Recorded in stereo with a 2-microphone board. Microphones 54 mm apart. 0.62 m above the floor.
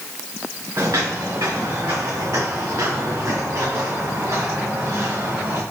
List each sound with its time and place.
0.8 s footsteps: 80° right, 4 m; by 5.6 s 55° right (ahead or behind), 6 m